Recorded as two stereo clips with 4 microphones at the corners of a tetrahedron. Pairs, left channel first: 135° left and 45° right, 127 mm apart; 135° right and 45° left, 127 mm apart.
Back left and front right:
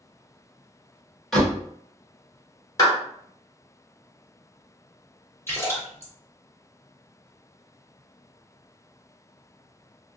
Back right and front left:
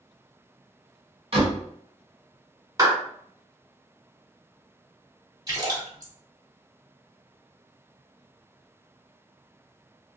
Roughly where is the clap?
Left.